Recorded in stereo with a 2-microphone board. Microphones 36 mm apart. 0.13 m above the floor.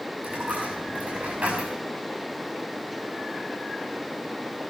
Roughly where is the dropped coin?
Right.